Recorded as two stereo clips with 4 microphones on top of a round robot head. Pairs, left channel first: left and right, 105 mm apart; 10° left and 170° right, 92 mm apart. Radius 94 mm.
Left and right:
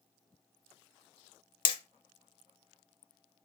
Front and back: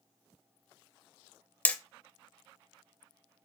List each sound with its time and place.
1.6 s hammering: 75° left, 0.5 m